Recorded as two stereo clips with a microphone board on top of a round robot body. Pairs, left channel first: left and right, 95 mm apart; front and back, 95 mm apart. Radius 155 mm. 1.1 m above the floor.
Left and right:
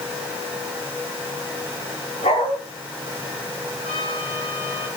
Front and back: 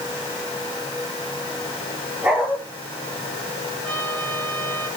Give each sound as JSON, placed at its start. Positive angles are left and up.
{"t": 2.2, "sound": "a dog barking", "azimuth_deg": 100, "distance_m": 10.0}
{"t": 3.8, "sound": "a trumpet", "azimuth_deg": 75, "distance_m": 9.0}